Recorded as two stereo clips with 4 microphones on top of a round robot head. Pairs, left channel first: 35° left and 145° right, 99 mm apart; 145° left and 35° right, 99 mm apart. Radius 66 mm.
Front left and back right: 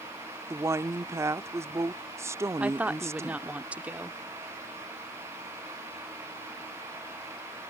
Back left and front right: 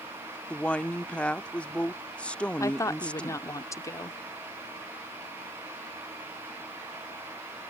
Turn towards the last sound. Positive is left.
turn(degrees=150)